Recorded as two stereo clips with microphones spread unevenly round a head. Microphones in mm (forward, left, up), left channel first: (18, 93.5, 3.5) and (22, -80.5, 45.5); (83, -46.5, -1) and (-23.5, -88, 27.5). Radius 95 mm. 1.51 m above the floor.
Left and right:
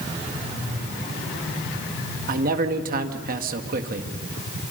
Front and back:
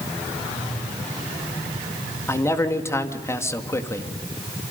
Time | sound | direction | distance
2.3 | a man speaking | 50° right | 2.0 m